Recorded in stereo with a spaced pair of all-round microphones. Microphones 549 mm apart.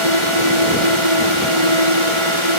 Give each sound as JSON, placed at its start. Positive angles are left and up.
{"t": 0.0, "sound": "a drone", "side_deg": -60}